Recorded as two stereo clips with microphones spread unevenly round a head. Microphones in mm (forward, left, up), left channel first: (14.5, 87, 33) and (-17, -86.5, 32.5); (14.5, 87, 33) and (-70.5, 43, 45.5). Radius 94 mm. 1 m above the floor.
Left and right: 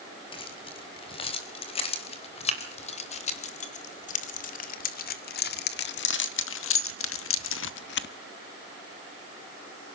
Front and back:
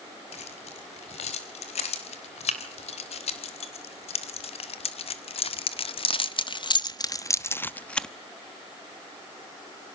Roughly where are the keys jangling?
Ahead.